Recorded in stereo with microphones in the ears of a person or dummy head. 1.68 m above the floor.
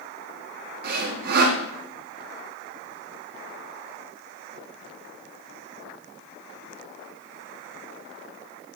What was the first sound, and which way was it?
Sawing, 60° right (ahead or behind).